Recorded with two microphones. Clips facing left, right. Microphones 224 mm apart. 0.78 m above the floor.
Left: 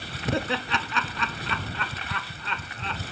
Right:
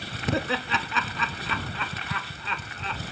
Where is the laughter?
Centre (ahead or behind).